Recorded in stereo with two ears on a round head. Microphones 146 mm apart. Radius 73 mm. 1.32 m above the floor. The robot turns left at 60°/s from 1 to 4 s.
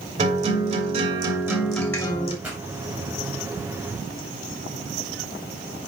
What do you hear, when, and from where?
0.2 s a guitar: 135° right, 2.5 m; by 2.3 s 145° left, 2.5 m
2.4 s a pop: 10° right (ahead or behind), 4.5 m; by 2.6 s centre (ahead or behind), 4.5 m